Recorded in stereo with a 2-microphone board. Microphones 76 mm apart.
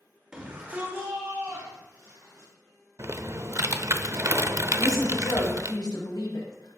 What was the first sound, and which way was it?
A shout, 15° right (ahead or behind).